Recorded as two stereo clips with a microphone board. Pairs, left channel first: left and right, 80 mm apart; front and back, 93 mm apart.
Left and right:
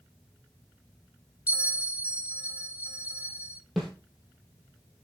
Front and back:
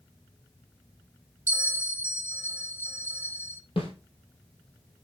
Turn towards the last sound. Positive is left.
turn(degrees=0)